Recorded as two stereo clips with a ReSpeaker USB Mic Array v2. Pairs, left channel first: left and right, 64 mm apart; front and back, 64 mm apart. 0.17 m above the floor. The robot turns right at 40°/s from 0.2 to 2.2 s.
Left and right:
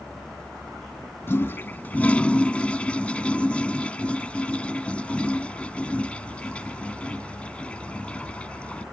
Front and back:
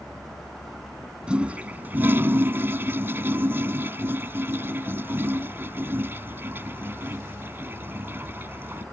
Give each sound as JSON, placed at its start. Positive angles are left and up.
{"t": 1.3, "sound": "a toilet flushing", "azimuth_deg": 115}